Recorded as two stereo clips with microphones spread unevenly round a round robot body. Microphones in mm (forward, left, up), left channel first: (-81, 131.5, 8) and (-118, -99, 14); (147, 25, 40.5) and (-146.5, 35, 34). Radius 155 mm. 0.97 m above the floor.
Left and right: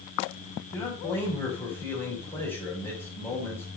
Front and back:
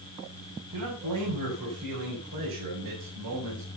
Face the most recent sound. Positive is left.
turn(degrees=145)